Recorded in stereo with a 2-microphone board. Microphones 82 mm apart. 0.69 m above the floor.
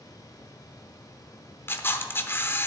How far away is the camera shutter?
About 0.8 m.